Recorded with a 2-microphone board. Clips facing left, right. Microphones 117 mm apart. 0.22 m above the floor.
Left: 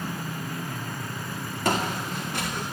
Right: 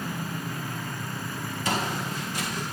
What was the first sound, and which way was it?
Footsteps, 60° left (ahead or behind).